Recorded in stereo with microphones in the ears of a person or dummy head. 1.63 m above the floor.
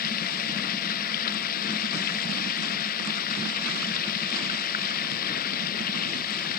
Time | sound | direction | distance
0.0 | running water | 55° left (ahead or behind) | ?